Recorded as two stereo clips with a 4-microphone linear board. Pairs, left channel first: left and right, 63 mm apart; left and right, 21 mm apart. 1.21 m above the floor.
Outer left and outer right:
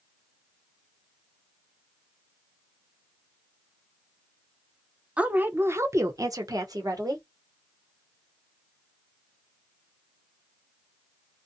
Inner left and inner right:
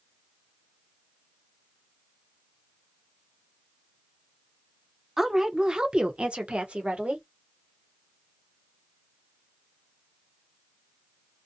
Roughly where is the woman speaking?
Centre.